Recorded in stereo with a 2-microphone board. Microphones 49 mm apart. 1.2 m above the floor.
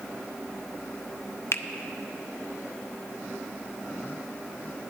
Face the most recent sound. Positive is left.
turn(degrees=60)  # may be behind; listen again after turning